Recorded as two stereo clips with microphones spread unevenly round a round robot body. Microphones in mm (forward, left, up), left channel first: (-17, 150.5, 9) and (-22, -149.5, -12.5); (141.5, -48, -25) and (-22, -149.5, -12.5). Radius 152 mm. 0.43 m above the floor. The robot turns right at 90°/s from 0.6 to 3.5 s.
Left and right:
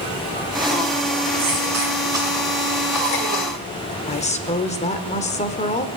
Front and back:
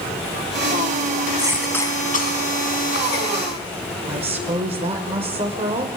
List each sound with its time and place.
1.4 s a cough: 80° right, 3 m; by 3.5 s 110° left, 3 m
4.1 s a woman speaking: 155° left, 1.0 m